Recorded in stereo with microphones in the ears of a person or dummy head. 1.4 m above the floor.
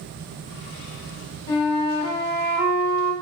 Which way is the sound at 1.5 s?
30° left (ahead or behind).